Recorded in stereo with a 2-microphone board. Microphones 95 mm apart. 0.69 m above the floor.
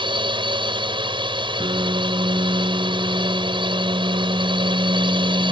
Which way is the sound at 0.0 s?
60° right (ahead or behind).